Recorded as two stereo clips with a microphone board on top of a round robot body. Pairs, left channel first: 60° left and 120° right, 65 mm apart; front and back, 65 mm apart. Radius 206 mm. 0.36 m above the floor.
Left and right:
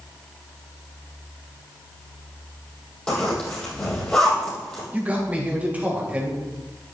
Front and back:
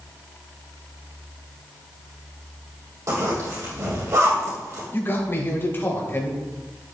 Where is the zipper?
135° left, 4.5 m.